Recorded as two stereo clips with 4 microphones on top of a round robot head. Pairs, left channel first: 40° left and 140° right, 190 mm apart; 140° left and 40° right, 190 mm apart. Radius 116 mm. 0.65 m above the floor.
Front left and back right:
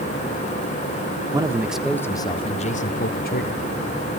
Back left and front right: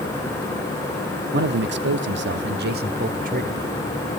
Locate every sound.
1.3 s a man speaking: 70° right, 1.4 m; by 3.6 s 10° left, 2.5 m